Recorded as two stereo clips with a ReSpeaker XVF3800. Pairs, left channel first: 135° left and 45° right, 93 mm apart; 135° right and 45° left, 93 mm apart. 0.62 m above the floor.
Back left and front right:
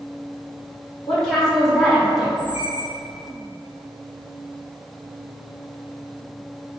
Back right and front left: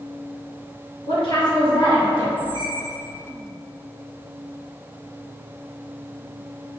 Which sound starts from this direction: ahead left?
A squeak, at 2.4 s.